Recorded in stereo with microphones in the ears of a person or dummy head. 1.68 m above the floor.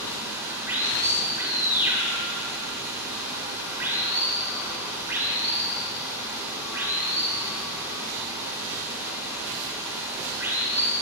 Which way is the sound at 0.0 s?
10° right (ahead or behind).